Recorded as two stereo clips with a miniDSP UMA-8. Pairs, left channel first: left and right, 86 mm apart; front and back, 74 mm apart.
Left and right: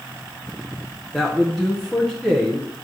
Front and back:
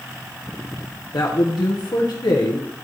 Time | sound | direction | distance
1.1 | a man speaking | straight ahead | 1.0 m